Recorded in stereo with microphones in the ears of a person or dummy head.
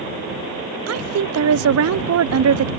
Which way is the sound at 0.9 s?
85° right.